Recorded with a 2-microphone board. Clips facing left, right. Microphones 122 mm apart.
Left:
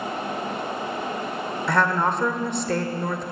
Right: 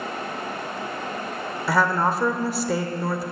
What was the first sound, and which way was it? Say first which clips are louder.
A woman speaking: right 1 dB; 5° right (ahead or behind).